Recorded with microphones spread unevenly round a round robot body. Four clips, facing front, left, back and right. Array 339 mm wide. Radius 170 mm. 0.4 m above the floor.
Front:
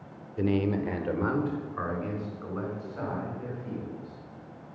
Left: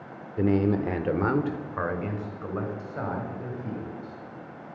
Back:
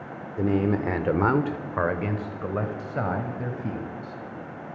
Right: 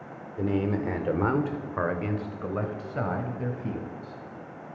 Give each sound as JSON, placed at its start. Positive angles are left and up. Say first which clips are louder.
{"t": 0.4, "sound": "a man speaking", "louder": "left 4 dB, back 3 dB", "azimuth_deg": 110, "distance_m": 0.8}